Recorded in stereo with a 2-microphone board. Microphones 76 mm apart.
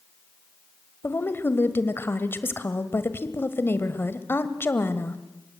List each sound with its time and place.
1.0 s a woman speaking: 30° left (ahead or behind), 1.5 m